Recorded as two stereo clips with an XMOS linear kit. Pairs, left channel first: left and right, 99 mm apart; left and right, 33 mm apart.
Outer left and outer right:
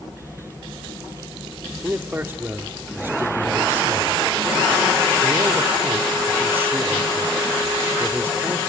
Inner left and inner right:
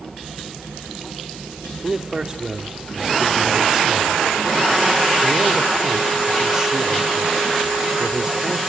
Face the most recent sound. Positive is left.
turn(degrees=-25)  # may be behind; listen again after turning